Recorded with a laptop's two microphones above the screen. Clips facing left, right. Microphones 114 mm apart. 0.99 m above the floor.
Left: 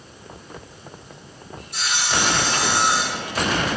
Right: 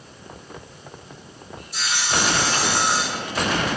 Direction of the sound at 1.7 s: 60° left (ahead or behind).